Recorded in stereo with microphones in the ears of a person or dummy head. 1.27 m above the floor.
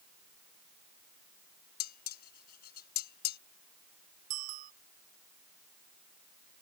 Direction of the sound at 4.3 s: 40° right (ahead or behind).